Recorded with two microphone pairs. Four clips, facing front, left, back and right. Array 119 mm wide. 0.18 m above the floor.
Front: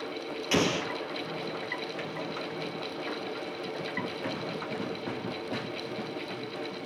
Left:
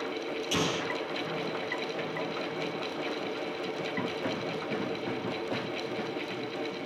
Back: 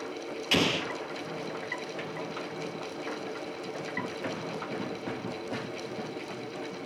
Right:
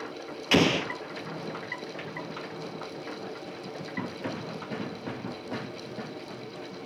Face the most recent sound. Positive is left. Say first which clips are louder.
# right 9 dB, front 1 dB
turn(degrees=-90)